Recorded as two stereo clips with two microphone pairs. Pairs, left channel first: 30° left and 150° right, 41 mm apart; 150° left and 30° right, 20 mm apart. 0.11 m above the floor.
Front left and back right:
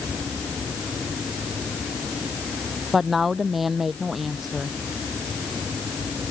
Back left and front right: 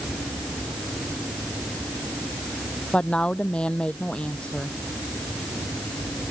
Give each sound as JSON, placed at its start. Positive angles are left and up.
{"t": 2.9, "sound": "a woman speaking", "azimuth_deg": 125}